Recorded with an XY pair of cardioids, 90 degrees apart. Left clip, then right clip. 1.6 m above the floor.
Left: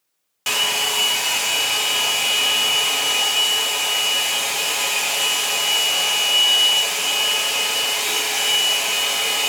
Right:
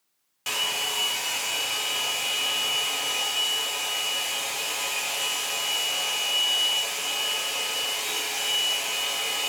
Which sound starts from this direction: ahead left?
A hair dryer, at 0.5 s.